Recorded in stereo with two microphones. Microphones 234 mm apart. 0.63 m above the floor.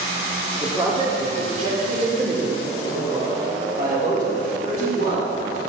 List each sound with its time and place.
0.6 s a man speaking: 15° right (ahead or behind), 1.6 m; by 5.6 s 50° right (ahead or behind), 6 m